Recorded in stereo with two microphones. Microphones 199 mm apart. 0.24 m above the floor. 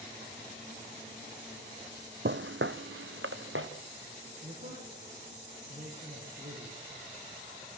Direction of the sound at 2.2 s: 65° right (ahead or behind).